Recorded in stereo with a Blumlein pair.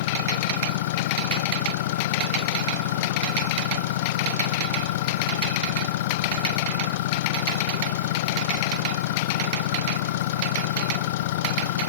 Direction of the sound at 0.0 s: 55° left.